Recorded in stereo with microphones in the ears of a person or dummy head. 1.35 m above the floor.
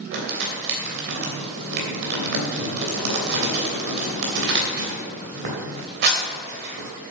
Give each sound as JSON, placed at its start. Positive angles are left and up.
{"t": 0.1, "sound": "crumpling", "side_deg": -60, "distance_m": 3.0}